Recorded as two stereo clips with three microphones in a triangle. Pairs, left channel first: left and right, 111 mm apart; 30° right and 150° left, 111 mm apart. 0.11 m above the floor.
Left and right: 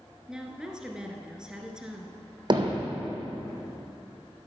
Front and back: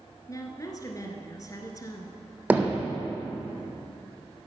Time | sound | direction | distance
0.3 | a woman speaking | 10° right | 1.3 m
2.5 | hammering | 135° right | 1.4 m